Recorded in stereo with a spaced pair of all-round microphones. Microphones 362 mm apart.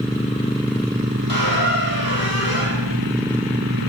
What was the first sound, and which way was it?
A squeak, 70° left (ahead or behind).